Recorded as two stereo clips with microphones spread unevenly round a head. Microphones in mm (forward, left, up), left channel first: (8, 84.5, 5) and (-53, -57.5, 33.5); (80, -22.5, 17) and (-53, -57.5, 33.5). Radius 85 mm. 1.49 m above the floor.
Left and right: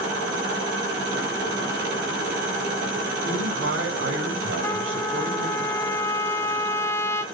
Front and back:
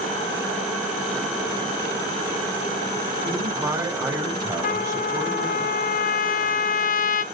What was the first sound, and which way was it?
A man speaking, 100° right.